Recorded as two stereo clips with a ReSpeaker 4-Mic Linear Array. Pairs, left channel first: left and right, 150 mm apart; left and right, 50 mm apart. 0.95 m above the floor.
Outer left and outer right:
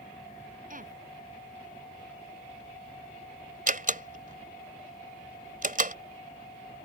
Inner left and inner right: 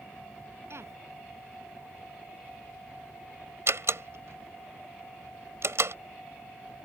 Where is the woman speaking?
65° right (ahead or behind).